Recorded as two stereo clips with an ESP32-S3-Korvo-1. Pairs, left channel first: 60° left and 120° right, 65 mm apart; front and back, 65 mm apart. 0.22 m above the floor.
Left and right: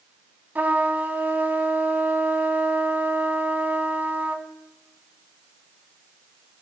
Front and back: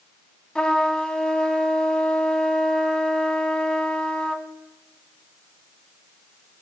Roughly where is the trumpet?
Right.